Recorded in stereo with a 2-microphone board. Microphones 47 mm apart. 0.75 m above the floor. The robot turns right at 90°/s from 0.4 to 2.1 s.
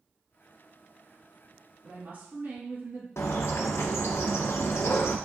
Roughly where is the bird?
Left.